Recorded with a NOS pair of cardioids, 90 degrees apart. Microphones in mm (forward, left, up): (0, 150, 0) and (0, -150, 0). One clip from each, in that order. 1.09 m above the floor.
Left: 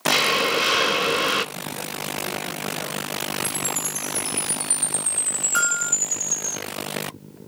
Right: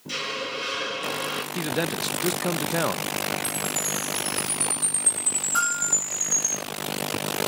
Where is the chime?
25° left, 8 m.